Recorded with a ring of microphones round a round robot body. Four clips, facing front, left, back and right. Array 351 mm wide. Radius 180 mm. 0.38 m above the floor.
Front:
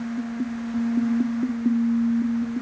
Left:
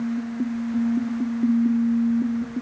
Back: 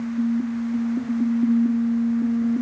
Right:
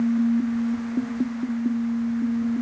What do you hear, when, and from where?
Only background noise.